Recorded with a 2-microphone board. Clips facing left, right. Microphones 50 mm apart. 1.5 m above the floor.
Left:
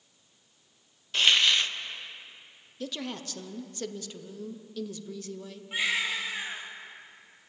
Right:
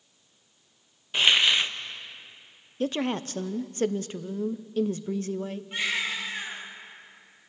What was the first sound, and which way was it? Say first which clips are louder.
A hiss: right 2 dB; 20° right (ahead or behind).